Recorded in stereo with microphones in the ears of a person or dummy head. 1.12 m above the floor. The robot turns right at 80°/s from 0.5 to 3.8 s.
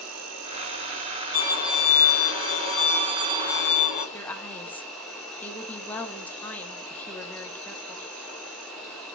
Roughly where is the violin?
Ahead.